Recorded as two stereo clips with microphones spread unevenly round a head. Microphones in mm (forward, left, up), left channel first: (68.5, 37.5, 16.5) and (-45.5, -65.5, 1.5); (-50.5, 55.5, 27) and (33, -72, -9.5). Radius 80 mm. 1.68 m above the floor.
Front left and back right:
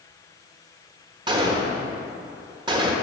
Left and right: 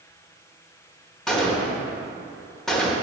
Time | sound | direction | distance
1.3 | a gunshot | straight behind | 1.0 m